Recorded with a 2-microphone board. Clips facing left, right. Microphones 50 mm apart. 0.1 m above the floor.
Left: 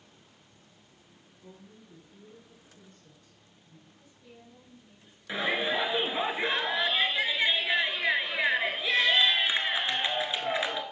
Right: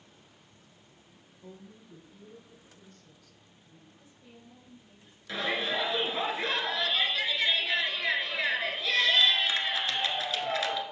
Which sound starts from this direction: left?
A shout, at 5.3 s.